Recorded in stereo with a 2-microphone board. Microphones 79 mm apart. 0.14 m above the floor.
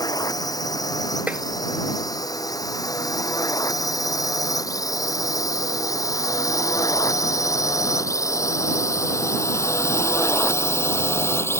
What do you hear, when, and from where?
0.0 s a drone: 55° left (ahead or behind); by 11.6 s 35° left (ahead or behind)
1.3 s tapping: 20° right (ahead or behind)